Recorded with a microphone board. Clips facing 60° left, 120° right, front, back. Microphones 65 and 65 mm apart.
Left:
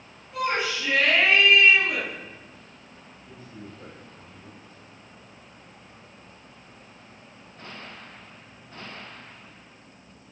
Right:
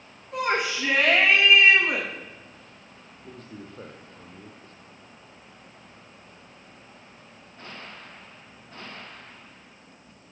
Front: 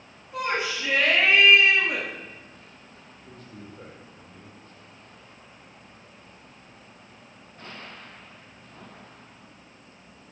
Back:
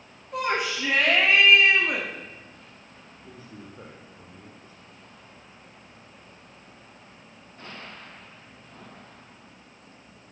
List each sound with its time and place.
0.3 s a shout: 145° right, 7.5 m
3.2 s a man speaking: 100° right, 7 m